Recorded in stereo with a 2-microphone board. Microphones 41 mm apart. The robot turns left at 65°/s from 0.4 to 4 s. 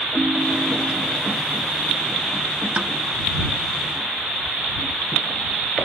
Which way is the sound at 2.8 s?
35° right (ahead or behind).